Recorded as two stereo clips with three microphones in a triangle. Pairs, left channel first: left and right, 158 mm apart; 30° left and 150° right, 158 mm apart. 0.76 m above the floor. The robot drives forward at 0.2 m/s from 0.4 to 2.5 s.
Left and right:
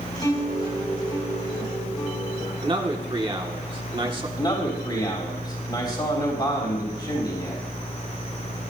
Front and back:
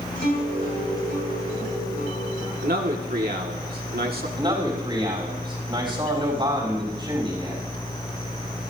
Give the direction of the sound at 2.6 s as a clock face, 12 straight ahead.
5 o'clock.